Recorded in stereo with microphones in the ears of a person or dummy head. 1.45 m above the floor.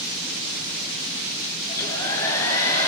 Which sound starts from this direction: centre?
A hair dryer, at 1.7 s.